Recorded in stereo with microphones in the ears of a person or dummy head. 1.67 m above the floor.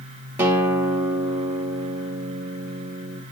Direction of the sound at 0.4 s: 10° right (ahead or behind).